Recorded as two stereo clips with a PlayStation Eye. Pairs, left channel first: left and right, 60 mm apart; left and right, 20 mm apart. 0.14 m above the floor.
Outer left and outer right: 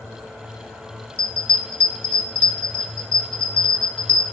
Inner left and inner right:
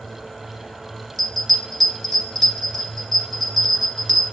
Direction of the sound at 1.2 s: 20° left (ahead or behind).